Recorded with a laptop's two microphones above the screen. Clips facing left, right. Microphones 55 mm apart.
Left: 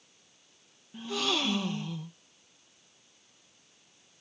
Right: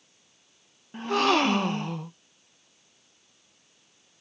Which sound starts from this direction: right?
A gasp, at 0.9 s.